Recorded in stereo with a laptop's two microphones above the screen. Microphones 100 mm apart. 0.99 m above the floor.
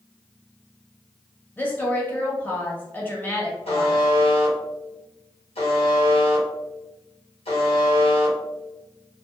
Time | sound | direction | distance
1.6 | a woman speaking | 15° left (ahead or behind) | 0.8 m
3.7 | a buzzer | 85° left | 1.0 m